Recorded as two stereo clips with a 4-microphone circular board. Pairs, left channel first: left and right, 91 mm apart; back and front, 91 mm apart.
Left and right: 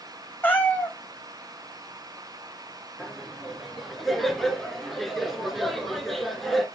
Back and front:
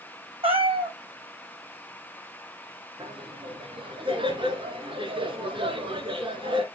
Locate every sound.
0.4 s a cat meowing: 20° left, 1.2 m
3.0 s laughter: 5° left, 2 m